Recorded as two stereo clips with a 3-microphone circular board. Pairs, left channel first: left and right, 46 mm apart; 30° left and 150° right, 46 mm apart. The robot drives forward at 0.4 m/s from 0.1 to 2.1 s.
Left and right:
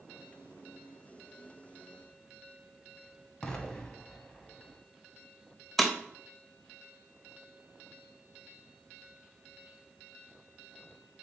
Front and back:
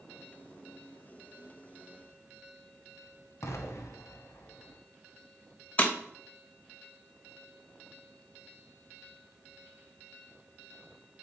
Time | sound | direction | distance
3.4 | an explosion | 20° left | 0.6 m
5.8 | breaking glass | 5° left | 0.6 m